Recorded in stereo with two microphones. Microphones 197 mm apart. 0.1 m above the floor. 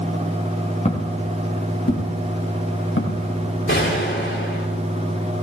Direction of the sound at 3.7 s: 80° left.